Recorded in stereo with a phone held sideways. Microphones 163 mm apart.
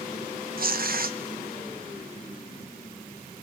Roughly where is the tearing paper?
Right.